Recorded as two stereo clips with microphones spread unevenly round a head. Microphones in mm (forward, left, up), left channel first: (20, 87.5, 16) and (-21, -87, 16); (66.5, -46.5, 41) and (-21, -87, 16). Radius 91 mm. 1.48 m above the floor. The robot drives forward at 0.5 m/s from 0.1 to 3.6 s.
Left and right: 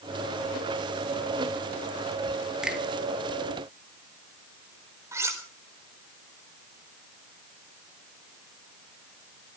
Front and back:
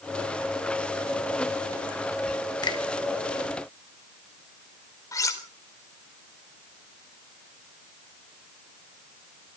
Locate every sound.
2.6 s a finger snap: 15° right, 2 m; by 2.8 s 20° right, 2 m
5.1 s cutlery clinking: 25° right, 3.5 m